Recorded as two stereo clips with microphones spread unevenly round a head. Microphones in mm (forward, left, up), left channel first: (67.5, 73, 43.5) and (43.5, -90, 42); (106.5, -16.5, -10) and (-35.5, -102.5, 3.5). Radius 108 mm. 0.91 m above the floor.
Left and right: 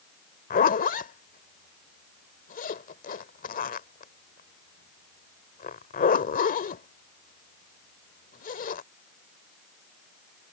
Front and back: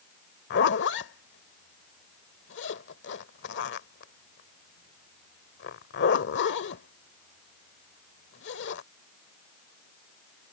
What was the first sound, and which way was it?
A zipper, 50° left.